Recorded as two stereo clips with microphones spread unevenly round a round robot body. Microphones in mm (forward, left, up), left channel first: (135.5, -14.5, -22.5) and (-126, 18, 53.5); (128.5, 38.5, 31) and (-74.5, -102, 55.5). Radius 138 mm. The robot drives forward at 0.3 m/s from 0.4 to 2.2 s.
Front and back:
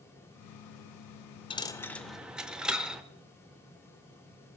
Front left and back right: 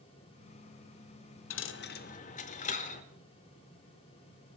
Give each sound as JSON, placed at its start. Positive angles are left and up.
{"t": 1.5, "sound": "a dropped coin", "azimuth_deg": 75, "distance_m": 0.6}